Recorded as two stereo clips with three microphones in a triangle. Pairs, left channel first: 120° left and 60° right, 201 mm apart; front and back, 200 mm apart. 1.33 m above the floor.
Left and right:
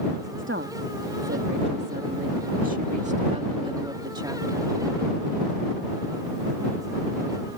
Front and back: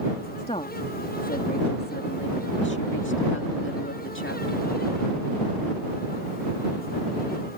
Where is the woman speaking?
60° right; by 4.8 s 15° left.